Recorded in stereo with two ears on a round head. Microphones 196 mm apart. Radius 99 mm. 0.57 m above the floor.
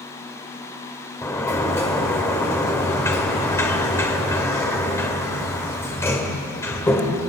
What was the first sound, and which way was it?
A sliding door, 15° left (ahead or behind).